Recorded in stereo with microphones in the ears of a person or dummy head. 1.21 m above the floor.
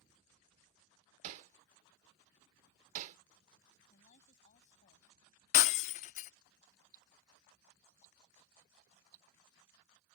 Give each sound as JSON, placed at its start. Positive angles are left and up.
{"t": 1.2, "sound": "hammering", "side_deg": -40}
{"t": 3.9, "sound": "a woman speaking", "side_deg": 45}
{"t": 5.5, "sound": "breaking glass", "side_deg": 35}
{"t": 6.9, "sound": "ticking", "side_deg": -45}